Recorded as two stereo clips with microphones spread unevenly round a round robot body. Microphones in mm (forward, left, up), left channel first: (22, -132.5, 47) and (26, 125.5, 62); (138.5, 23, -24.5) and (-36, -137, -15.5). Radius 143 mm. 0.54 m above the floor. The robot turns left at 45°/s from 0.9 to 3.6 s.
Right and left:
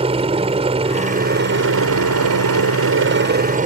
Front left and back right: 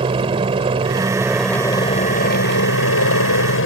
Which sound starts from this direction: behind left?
A helicopter, at 0.0 s.